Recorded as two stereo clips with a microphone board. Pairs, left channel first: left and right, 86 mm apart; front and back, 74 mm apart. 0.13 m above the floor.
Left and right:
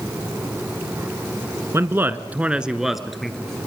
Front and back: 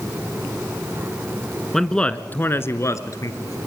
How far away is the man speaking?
About 1.4 m.